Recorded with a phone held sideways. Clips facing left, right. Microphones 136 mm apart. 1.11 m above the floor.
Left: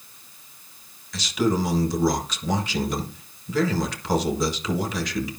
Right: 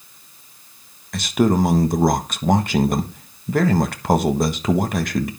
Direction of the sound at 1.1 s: 55° right (ahead or behind).